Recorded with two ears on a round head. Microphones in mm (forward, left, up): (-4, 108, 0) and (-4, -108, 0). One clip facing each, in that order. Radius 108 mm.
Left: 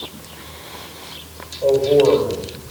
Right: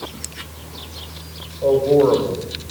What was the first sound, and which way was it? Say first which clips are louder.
A man speaking: left 1 dB; 5° right (ahead or behind).